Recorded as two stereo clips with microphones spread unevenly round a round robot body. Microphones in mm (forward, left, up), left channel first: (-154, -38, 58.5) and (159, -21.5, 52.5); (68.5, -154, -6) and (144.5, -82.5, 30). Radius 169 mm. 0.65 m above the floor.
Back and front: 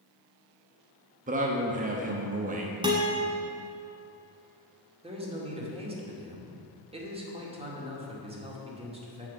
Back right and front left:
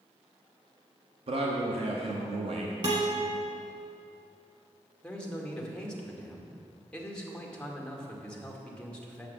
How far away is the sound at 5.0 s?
About 2 m.